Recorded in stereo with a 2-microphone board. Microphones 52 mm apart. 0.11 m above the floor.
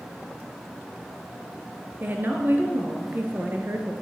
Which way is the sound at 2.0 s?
40° right (ahead or behind).